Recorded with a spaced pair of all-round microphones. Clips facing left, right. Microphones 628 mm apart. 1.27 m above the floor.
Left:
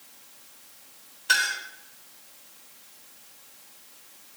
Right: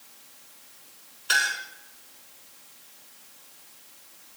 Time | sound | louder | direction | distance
1.3 | a clink | even | 65° left (ahead or behind) | 3.5 m